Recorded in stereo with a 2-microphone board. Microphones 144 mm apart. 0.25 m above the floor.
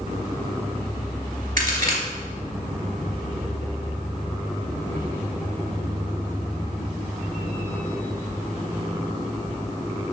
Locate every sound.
1.6 s a crack: 70° right (ahead or behind), 3 m